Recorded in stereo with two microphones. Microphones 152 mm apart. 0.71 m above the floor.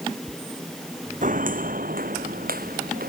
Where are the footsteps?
60° right (ahead or behind); by 3.1 s 75° right (ahead or behind).